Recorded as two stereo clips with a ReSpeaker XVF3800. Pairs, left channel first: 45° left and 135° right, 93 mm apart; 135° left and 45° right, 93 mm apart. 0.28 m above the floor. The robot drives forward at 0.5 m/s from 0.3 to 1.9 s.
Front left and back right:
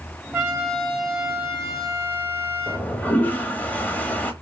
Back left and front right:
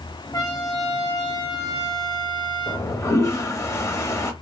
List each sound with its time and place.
0.3 s a trumpet: 150° left, 1.4 m; by 2.9 s 165° left, 2.0 m
2.7 s a toilet flushing: 105° left, 0.5 m